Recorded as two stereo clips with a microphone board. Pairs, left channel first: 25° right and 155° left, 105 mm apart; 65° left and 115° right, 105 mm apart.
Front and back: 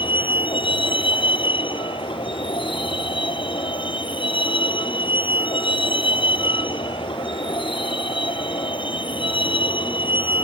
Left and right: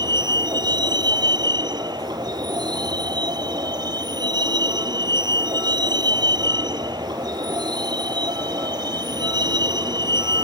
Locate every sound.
0.0 s a vehicle: 60° right